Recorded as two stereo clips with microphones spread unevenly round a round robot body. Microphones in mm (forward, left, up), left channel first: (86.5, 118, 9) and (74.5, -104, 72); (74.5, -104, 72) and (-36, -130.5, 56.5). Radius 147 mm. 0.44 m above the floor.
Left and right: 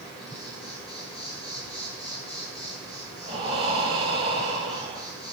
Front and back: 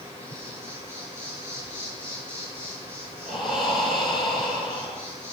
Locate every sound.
0.0 s an insect: 20° left, 8.5 m
3.2 s breathing: 25° right, 4.5 m